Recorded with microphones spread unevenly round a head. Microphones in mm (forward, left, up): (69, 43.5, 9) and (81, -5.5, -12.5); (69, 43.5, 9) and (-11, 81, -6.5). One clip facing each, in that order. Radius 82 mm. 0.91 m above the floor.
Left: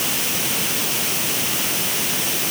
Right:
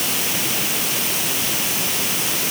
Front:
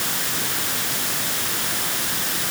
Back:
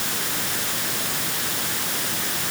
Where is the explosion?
I don't hear an explosion.